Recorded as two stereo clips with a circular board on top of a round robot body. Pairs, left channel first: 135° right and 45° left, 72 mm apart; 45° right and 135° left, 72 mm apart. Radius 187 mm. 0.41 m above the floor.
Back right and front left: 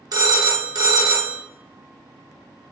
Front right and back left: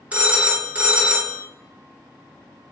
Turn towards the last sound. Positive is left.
turn(degrees=65)